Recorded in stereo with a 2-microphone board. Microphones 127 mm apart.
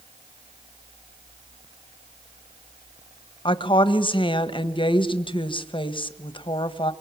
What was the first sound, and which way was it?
A woman speaking, 40° left (ahead or behind).